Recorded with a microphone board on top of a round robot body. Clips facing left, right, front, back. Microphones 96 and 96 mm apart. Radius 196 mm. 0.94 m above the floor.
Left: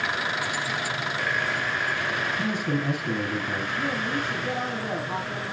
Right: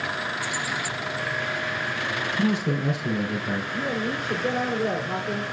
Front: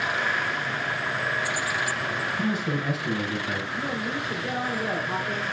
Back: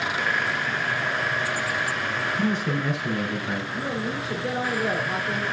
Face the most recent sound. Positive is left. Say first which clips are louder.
# left 1 dB, back 1 dB
turn(degrees=-115)